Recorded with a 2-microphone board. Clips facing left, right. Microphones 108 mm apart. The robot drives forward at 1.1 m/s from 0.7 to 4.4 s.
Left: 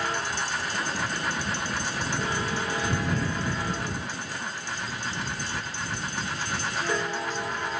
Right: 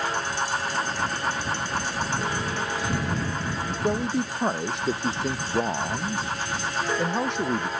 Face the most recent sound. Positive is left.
turn(degrees=-75)  # may be behind; listen again after turning